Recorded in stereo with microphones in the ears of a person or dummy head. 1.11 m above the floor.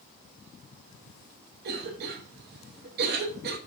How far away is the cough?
About 0.7 m.